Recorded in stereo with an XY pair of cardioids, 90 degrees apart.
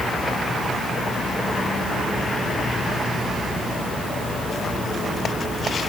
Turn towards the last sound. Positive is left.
No sound to turn to.